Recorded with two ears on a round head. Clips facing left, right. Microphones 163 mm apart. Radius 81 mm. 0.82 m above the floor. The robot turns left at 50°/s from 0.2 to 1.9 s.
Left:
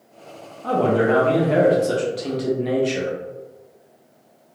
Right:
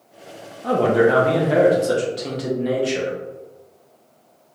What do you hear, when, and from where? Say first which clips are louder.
0.6 s a man speaking: right 2 dB; 15° right (ahead or behind), 0.5 m; by 3.1 s centre (ahead or behind), 0.5 m